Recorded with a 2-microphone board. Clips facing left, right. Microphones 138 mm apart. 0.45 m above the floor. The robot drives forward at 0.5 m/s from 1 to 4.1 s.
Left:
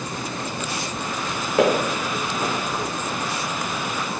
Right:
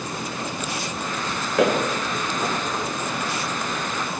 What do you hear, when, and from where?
1.6 s footsteps: 15° left (ahead or behind), 1.6 m; by 2.5 s 20° left (ahead or behind), 1.2 m